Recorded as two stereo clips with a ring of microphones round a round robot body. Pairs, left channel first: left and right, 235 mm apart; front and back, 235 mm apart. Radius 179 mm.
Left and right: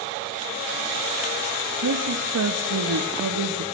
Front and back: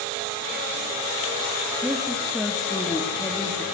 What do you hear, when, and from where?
1.8 s a woman speaking: 90° right, 1.2 m